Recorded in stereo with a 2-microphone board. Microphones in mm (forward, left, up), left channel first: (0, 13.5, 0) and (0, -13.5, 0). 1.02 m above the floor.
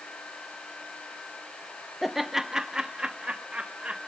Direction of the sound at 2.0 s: 5° right (ahead or behind).